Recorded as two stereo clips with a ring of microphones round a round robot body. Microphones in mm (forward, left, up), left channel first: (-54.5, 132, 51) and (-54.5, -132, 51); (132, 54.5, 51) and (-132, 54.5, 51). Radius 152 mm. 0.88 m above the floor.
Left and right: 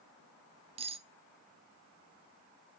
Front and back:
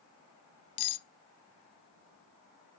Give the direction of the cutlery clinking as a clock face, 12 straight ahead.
1 o'clock.